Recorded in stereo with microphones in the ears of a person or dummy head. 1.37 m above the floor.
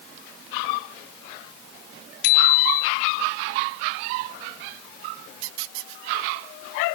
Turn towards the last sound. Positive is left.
turn(degrees=75)  # may be behind; listen again after turning